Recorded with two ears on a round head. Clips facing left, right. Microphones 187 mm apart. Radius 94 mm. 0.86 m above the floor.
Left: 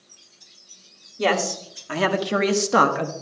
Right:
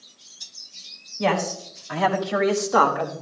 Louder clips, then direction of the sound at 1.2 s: Left 1 dB; 50° left (ahead or behind).